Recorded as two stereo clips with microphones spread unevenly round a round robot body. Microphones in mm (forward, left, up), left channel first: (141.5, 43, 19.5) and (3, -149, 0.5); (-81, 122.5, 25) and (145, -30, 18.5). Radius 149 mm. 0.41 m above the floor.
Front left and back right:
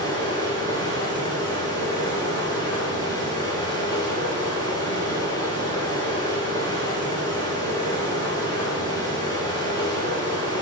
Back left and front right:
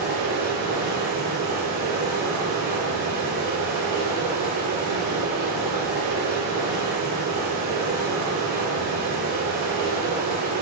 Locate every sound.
0.0 s running water: 20° right, 3 m